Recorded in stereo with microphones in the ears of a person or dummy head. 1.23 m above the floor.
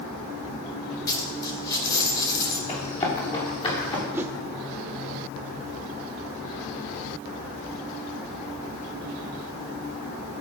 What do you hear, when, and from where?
1.1 s a dropped coin: 20° left (ahead or behind), 2.5 m
2.7 s running footsteps: 30° left (ahead or behind), 8 m; by 4.0 s 25° left (ahead or behind), 7 m
4.1 s a whoosh: 15° right (ahead or behind), 1.1 m